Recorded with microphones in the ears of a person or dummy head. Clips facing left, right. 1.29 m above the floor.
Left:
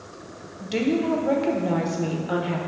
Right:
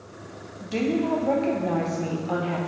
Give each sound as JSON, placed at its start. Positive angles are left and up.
{"t": 0.6, "sound": "a woman speaking", "side_deg": 15, "distance_m": 1.0}